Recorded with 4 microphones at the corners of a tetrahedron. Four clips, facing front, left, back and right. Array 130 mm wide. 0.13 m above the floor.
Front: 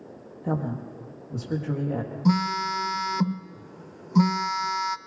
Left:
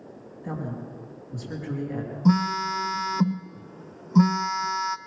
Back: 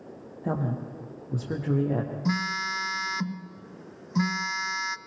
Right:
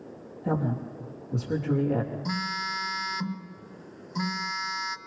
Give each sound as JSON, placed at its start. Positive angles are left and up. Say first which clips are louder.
{"t": 0.4, "sound": "a woman speaking", "louder": "right 5 dB, front 1 dB", "azimuth_deg": -155, "distance_m": 5.0}
{"t": 2.2, "sound": "a phone buzzing", "louder": "left 9 dB, front 10 dB", "azimuth_deg": 55, "distance_m": 0.6}